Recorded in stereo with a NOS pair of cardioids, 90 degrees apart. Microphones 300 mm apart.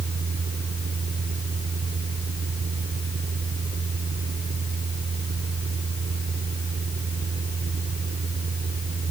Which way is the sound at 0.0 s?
35° right.